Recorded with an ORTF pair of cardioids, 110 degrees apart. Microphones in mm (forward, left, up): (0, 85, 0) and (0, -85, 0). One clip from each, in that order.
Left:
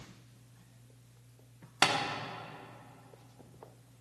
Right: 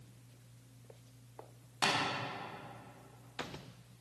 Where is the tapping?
50° left, 3.5 m.